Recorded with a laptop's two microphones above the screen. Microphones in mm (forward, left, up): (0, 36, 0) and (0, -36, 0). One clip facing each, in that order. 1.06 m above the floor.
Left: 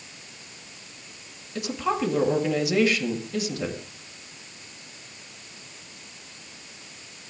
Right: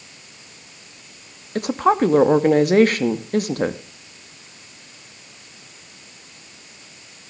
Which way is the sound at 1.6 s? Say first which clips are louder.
Right 9 dB; 50° right (ahead or behind).